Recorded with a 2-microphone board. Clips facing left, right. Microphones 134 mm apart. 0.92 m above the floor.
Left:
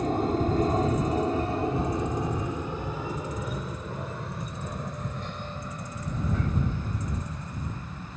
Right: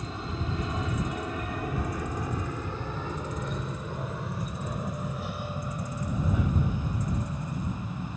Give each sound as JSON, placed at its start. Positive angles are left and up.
{"t": 0.0, "sound": "an aircraft", "side_deg": 50}